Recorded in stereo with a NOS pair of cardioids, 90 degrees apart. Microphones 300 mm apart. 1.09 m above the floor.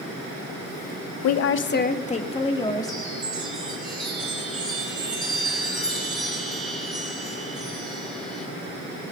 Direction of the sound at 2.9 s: Straight ahead.